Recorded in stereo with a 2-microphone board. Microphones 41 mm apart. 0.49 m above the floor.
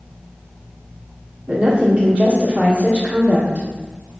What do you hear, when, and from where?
1.5 s a woman speaking: 30° right (ahead or behind), 1.1 m